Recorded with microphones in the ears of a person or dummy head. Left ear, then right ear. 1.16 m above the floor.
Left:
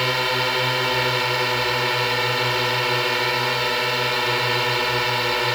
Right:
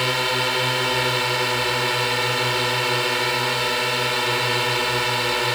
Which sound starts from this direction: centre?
A drone, at 0.0 s.